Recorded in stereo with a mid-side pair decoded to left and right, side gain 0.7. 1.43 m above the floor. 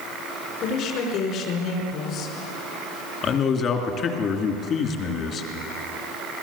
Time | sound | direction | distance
0.6 | a woman speaking | 55° left | 5 m
3.2 | a man speaking | 40° left | 3 m